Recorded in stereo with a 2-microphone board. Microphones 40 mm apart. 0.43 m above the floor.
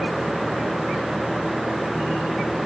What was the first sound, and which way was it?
Only background noise.